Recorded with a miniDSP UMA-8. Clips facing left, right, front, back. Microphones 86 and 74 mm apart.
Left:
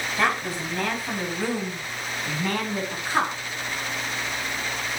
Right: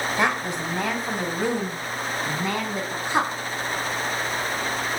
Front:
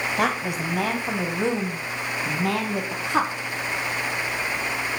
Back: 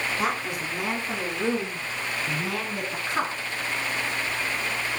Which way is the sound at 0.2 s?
20° right.